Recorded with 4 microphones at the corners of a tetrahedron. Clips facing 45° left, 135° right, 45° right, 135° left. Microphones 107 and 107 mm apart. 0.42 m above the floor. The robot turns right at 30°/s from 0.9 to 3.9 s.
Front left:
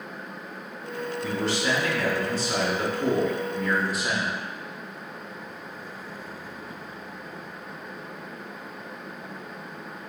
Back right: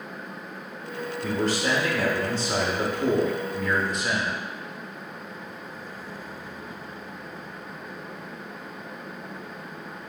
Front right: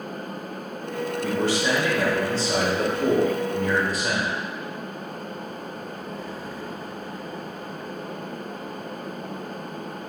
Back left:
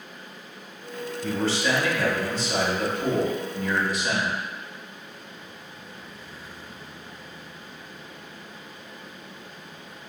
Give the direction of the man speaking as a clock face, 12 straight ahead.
4 o'clock.